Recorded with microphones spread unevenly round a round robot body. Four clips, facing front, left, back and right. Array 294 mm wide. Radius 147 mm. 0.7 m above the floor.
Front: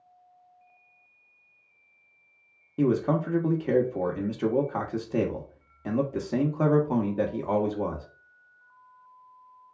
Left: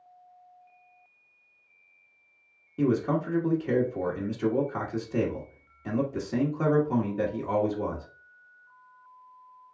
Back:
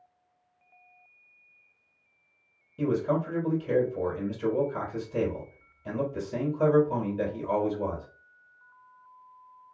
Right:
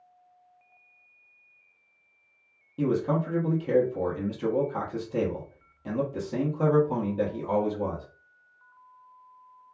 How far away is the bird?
No bird in this recording.